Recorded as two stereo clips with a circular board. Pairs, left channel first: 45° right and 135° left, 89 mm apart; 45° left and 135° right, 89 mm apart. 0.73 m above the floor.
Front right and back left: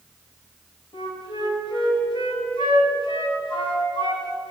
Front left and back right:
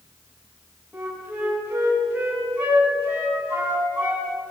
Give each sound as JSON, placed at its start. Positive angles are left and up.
{"t": 0.9, "sound": "a flute", "azimuth_deg": -60, "distance_m": 8.0}